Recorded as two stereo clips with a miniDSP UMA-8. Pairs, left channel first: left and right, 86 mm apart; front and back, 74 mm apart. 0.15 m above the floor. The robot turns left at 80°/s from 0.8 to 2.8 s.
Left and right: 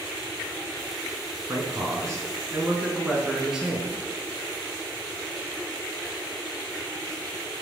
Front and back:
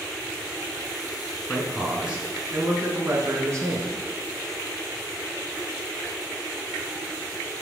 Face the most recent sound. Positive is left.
turn(degrees=-170)